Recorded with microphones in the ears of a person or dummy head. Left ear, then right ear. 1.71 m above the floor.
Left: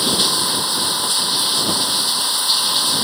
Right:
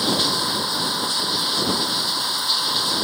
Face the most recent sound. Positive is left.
turn(degrees=15)  # may be behind; listen again after turning